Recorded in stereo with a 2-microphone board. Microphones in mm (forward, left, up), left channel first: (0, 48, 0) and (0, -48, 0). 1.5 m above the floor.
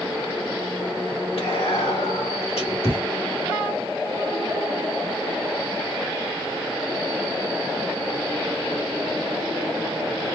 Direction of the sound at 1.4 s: 75° left (ahead or behind).